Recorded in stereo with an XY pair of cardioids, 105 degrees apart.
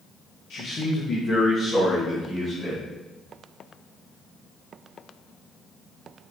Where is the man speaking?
70° left, 1.3 m; by 2.8 s 25° left, 3.5 m.